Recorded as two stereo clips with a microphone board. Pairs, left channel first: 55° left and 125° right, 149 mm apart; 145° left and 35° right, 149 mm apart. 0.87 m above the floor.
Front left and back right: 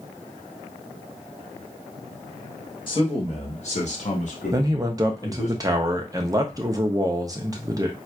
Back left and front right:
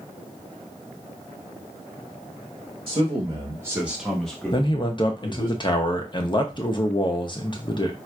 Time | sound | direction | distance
2.9 | a man speaking | 5° left | 1.2 m
4.5 | a man speaking | 175° right | 0.6 m